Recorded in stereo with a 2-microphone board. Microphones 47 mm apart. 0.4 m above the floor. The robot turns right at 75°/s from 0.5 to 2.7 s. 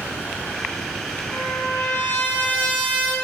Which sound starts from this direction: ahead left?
A trumpet, at 1.3 s.